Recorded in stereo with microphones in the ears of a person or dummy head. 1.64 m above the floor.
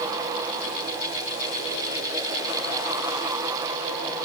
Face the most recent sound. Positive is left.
No sound to turn to.